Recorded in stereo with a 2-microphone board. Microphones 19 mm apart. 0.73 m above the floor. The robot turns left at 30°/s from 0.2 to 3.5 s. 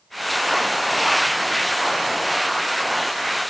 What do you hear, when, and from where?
Only background noise.